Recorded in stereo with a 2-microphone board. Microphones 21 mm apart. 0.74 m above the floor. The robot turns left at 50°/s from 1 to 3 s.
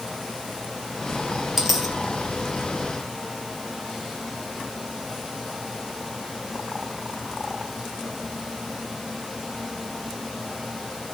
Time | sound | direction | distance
1.6 | a dropped coin | 5° right (ahead or behind) | 3 m